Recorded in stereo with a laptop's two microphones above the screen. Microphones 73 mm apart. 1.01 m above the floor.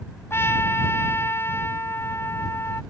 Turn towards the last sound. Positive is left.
turn(degrees=35)  # may be behind; listen again after turning